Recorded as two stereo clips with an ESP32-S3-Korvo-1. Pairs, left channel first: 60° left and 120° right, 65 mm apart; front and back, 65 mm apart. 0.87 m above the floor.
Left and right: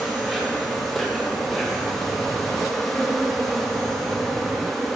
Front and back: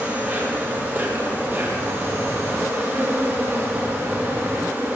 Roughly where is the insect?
Behind left.